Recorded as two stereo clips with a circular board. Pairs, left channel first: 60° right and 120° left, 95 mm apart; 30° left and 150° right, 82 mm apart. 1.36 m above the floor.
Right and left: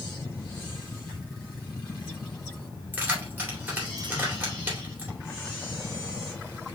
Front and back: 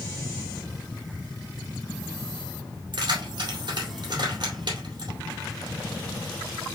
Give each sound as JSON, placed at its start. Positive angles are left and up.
{"t": 2.9, "sound": "keys jangling", "azimuth_deg": -170, "distance_m": 2.5}